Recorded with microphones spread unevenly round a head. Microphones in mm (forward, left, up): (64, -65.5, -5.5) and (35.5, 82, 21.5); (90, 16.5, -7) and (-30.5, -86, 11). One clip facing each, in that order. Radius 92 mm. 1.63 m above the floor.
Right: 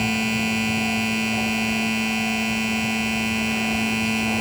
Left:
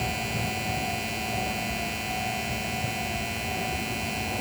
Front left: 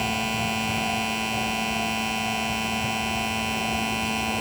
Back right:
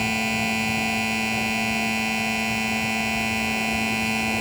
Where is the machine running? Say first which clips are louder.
Right 8 dB, back right 2 dB; 65° right.